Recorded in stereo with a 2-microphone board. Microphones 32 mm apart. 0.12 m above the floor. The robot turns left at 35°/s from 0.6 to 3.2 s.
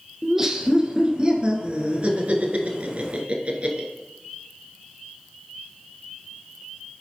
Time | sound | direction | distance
0.2 | laughter | 15° right (ahead or behind) | 1.8 m